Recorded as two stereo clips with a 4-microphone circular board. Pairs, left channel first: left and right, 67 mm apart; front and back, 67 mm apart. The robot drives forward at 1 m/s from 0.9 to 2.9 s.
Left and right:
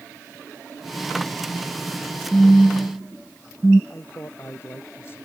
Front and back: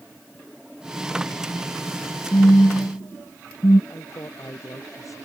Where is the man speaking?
35° left.